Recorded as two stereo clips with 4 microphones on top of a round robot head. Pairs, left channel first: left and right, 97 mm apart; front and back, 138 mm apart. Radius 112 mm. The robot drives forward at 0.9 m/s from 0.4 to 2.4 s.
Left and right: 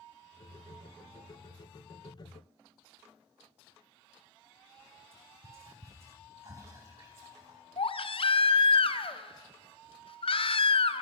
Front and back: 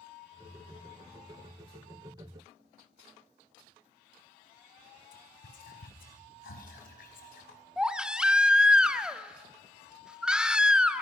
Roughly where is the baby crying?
Left.